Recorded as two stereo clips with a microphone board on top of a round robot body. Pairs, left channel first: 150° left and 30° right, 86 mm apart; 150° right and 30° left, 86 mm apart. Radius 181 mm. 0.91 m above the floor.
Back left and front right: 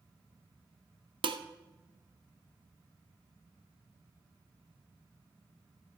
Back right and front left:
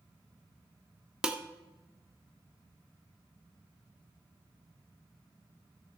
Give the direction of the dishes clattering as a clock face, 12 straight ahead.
2 o'clock.